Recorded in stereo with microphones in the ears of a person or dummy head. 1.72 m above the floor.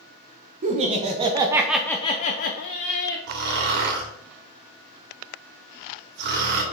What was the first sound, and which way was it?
Laughter, 40° right (ahead or behind).